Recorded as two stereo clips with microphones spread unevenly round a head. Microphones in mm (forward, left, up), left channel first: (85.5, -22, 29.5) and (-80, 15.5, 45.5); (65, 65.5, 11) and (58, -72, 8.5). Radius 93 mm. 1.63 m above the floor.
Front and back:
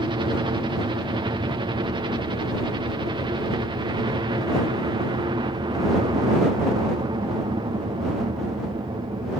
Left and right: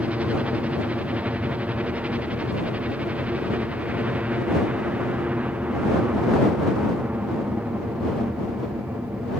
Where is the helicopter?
160° right.